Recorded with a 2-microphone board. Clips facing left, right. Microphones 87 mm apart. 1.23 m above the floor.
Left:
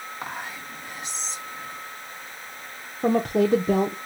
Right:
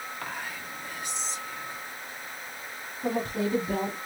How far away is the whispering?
About 1.5 m.